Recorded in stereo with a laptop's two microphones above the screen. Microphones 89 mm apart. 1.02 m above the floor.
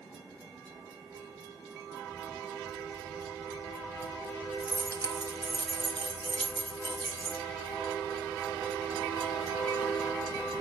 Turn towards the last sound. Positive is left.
turn(degrees=-65)  # may be behind; listen again after turning